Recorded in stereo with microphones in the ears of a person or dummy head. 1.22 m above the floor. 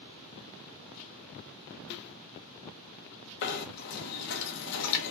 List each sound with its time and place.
1.9 s a snare drum: 60° left (ahead or behind), 0.6 m
3.4 s knocking: 65° left (ahead or behind), 0.9 m